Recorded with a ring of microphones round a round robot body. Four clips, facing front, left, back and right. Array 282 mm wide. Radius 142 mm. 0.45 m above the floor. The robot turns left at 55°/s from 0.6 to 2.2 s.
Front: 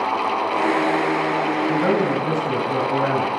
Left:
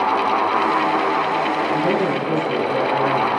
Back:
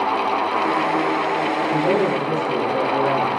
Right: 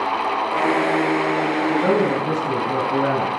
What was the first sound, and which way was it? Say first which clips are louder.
A man speaking: right 1 dB, back 1 dB; 25° right.